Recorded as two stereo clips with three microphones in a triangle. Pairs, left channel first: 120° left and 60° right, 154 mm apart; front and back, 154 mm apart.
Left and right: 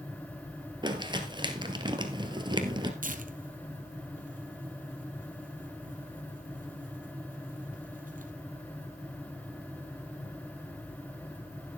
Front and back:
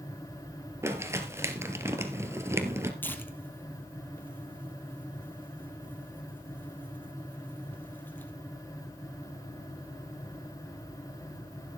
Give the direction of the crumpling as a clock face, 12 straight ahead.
4 o'clock.